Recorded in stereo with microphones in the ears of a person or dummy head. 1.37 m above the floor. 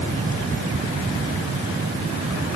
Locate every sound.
Only background noise.